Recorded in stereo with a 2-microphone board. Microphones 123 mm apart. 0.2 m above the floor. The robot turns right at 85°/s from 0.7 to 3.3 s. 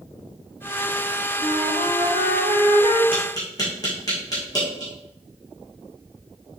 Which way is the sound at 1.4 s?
170° right.